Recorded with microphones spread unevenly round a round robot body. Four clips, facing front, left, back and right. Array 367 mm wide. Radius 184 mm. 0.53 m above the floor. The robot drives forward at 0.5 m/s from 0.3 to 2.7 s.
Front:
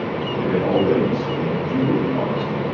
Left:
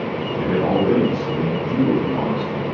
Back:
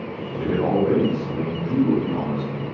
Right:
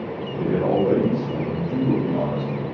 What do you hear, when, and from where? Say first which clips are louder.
0.4 s a man speaking: left 1 dB, front 1 dB; 120° left, 3.5 m; by 2.6 s 130° left, 4 m